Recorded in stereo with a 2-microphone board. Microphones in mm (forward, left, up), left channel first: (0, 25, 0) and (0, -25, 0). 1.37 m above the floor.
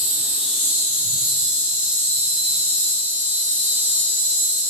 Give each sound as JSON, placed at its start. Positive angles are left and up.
{"t": 0.0, "sound": "an insect", "side_deg": -30, "distance_m": 0.9}